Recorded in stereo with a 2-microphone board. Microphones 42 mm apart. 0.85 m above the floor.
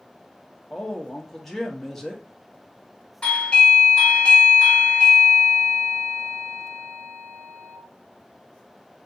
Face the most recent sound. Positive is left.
turn(degrees=20)  # may be behind; listen again after turning